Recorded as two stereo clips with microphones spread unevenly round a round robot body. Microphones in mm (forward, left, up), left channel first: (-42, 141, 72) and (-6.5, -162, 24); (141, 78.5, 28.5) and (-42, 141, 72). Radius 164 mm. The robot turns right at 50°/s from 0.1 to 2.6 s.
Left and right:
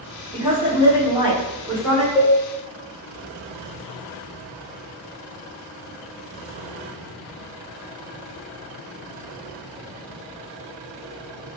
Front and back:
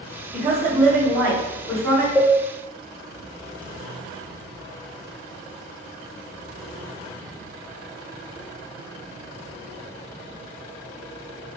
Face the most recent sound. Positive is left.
turn(degrees=10)